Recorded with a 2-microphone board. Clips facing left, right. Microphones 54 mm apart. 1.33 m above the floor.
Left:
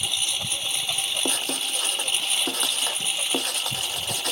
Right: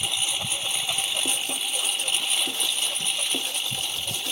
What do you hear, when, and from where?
0.0 s a lawn mower: 15° right (ahead or behind); by 4.3 s 10° left (ahead or behind)
1.2 s writing: 85° left